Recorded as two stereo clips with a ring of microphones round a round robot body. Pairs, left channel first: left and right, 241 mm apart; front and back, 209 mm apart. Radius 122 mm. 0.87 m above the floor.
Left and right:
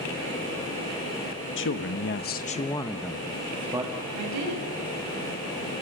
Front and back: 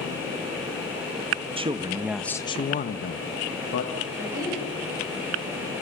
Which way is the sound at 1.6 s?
120° left.